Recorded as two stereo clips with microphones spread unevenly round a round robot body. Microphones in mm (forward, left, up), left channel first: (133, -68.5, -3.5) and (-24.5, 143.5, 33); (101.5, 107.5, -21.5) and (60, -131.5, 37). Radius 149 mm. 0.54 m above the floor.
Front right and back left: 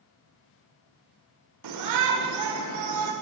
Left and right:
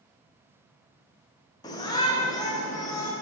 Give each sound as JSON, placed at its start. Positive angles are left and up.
{"t": 1.6, "sound": "a shout", "azimuth_deg": 150, "distance_m": 1.7}